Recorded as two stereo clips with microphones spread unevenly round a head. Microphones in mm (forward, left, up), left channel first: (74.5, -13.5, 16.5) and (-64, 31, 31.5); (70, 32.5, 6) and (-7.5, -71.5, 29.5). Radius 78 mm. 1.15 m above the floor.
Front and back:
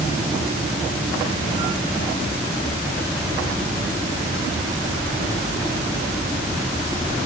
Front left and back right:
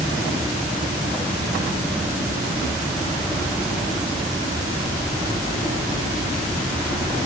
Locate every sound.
Only background noise.